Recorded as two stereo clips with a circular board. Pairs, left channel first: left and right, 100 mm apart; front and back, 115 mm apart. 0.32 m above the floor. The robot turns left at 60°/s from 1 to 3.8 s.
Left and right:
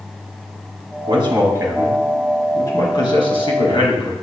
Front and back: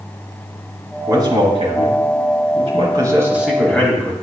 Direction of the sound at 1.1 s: 120° right.